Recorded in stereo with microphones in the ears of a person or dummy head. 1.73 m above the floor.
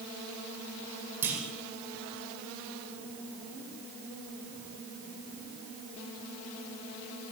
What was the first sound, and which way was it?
A clunk, 10° right (ahead or behind).